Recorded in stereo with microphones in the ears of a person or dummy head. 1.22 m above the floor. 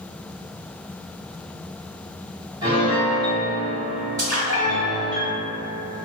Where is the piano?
20° right (ahead or behind), 1.3 m.